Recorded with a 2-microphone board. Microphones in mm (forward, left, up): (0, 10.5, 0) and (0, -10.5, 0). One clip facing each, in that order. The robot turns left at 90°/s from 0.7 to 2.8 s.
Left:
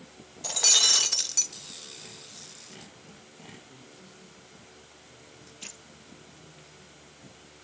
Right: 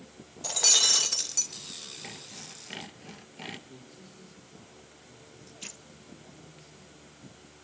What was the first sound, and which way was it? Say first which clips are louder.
Breaking glass: left 1 dB; 10° left (ahead or behind).